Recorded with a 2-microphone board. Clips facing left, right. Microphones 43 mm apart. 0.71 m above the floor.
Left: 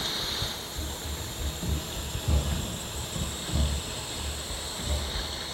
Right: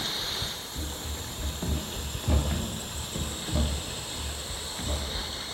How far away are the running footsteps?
About 2.5 m.